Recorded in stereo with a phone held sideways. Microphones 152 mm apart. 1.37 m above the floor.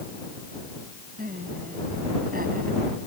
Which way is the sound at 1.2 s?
70° right (ahead or behind).